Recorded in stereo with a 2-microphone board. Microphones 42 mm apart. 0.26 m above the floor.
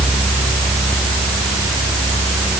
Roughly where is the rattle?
No rattle in this recording.